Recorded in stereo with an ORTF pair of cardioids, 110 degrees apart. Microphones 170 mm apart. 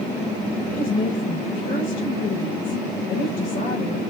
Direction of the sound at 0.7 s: 45° left.